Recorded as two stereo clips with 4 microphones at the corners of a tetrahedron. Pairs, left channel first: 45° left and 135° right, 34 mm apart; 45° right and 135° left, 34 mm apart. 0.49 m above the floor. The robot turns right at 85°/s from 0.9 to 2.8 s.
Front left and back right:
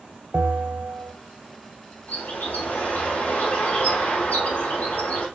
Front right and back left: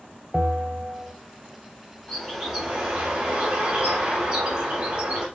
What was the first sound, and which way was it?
A bell, 150° right.